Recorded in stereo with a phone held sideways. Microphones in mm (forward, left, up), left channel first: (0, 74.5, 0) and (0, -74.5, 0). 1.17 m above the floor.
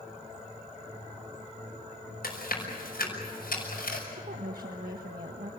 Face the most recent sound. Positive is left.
turn(degrees=-75)  # may be behind; listen again after turning